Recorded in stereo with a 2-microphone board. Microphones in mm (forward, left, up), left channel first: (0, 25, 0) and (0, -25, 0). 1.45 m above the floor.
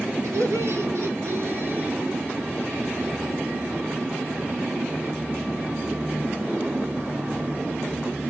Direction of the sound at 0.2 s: 75° right (ahead or behind).